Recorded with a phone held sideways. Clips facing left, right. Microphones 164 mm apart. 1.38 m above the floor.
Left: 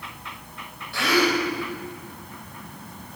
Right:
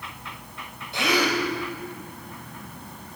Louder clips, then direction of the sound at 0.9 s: Left 2 dB; 20° right (ahead or behind).